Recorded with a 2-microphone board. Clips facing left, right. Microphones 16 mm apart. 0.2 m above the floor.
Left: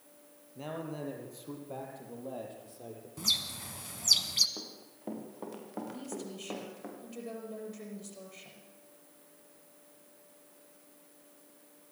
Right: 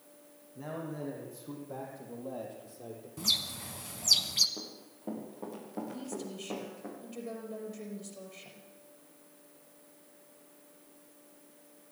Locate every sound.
0.6 s a man speaking: 45° left (ahead or behind), 4.5 m; by 3.1 s 5° left (ahead or behind), 6 m
3.2 s a bird: 5° left (ahead or behind), 1.2 m
4.6 s running footsteps: 30° left (ahead or behind), 5.5 m
5.9 s a woman speaking: 5° left (ahead or behind), 5.5 m